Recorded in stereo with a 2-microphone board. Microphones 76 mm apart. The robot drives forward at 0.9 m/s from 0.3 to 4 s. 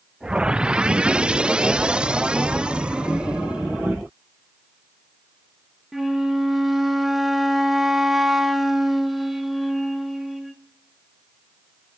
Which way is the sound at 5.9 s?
5° right (ahead or behind).